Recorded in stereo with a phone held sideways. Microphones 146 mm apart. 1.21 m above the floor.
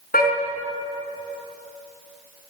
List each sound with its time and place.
0.1 s a car horn: 85° left, 5.5 m